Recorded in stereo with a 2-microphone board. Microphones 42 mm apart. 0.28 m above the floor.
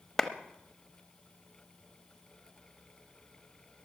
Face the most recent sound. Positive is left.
turn(degrees=5)  # may be behind; listen again after turning